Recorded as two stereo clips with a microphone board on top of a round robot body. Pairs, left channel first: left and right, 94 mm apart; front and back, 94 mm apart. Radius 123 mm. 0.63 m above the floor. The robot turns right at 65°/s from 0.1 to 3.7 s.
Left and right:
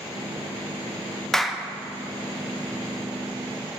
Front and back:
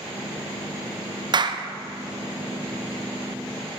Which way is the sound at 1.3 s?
170° left.